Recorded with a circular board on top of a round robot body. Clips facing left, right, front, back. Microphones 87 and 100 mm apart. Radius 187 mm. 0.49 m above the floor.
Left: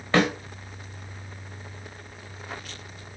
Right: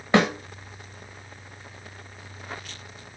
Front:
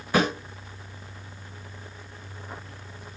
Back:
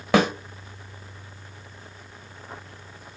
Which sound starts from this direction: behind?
A snare drum, at 0.1 s.